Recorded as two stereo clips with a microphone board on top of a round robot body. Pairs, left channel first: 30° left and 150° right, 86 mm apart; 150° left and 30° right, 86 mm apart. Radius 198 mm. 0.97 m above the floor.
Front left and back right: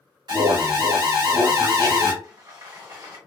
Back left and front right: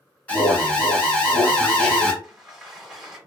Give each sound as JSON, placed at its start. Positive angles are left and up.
{"t": 0.3, "sound": "an alarm", "azimuth_deg": -140, "distance_m": 1.9}
{"t": 2.2, "sound": "a sliding door", "azimuth_deg": -110, "distance_m": 1.8}